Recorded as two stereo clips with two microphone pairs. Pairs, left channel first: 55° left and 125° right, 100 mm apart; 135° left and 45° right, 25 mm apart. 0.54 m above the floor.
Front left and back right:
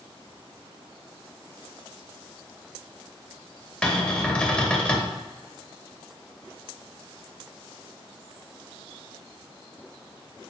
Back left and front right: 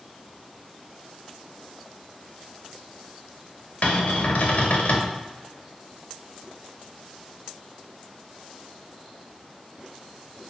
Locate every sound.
3.8 s a cupboard door: 135° left, 0.6 m